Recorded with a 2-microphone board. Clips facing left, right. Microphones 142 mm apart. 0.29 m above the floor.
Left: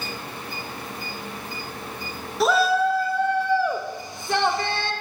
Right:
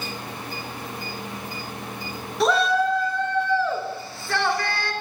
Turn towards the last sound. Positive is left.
turn(degrees=25)  # may be behind; listen again after turning